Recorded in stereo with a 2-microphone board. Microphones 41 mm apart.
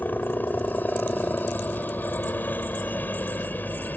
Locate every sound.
0.0 s a helicopter: 50° left (ahead or behind)